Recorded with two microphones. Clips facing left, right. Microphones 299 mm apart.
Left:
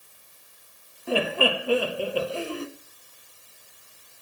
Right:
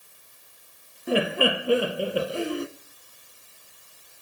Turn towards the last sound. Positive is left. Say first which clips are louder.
# right 1 dB
turn(degrees=-20)  # may be behind; listen again after turning